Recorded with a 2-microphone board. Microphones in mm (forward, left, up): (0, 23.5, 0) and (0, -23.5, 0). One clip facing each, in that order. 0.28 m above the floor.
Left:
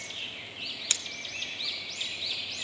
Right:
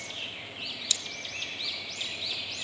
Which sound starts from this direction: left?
Scissors, at 0.9 s.